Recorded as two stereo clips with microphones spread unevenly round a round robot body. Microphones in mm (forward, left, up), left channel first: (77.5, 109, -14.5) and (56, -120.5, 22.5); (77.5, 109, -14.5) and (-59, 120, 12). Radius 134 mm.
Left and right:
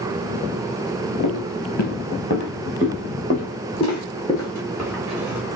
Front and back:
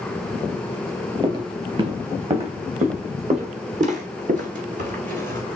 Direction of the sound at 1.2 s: 125° left.